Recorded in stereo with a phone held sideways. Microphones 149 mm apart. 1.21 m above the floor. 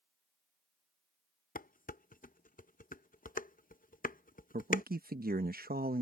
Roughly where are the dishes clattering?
Left.